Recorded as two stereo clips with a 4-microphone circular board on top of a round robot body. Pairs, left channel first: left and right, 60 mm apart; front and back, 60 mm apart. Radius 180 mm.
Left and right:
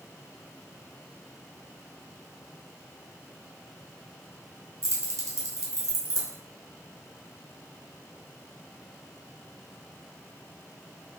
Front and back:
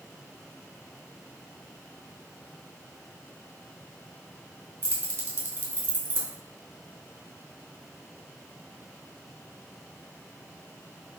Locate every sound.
4.8 s keys jangling: 125° right, 1.2 m